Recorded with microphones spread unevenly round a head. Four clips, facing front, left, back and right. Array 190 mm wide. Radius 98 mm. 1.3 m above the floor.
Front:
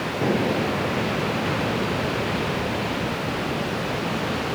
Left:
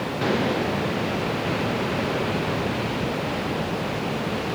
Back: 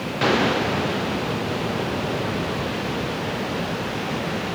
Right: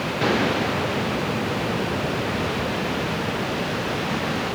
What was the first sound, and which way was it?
Only background noise.